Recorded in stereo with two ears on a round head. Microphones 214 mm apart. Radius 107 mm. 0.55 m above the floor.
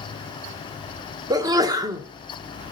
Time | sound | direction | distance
1.3 | a sneeze | 15° right (ahead or behind) | 0.9 m